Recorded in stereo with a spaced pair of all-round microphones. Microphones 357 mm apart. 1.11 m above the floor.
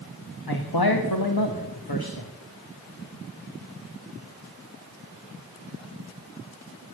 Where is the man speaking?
90° left, 1.4 m.